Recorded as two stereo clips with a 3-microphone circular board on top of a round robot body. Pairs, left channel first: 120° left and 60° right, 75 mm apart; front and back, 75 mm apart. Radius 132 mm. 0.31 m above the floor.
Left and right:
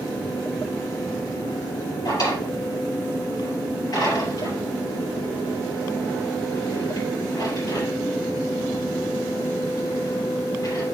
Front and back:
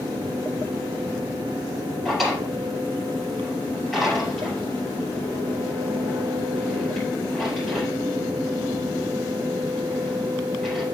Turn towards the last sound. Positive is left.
turn(degrees=95)